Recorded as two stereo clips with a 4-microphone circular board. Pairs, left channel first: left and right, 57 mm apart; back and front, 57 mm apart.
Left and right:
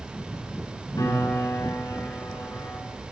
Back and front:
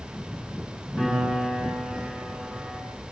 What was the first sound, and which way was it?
A piano, 90° left.